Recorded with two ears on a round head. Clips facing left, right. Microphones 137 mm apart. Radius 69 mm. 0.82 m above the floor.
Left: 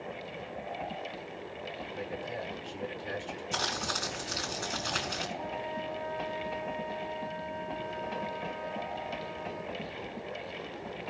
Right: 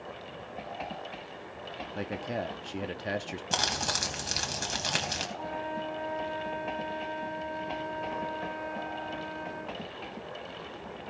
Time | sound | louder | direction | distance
1.9 | a man speaking | right 5 dB | 70° right (ahead or behind) | 1.0 m
3.5 | crumpling | right 3 dB | 75° right (ahead or behind) | 3 m
5.4 | a flute | right 1 dB | centre (ahead or behind) | 1.0 m